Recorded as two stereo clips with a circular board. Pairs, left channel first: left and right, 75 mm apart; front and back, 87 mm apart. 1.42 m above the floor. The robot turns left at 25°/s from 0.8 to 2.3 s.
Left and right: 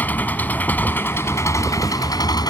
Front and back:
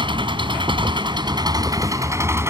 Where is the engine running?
160° left; by 2.5 s 120° left.